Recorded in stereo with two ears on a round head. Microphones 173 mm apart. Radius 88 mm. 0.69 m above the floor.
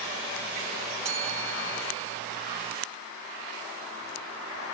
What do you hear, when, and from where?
1.1 s a bell: 30° right (ahead or behind)